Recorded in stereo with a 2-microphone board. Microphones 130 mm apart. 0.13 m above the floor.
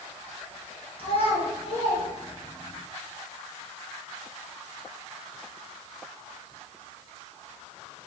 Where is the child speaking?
45° left (ahead or behind), 1.3 m.